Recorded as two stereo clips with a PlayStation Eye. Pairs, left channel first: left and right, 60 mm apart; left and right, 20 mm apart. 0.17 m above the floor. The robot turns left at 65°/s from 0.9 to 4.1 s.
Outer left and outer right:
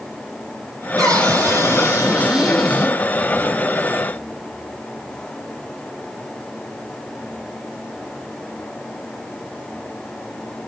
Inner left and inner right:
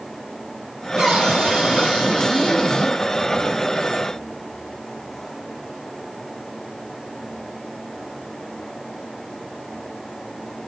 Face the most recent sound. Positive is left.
turn(degrees=80)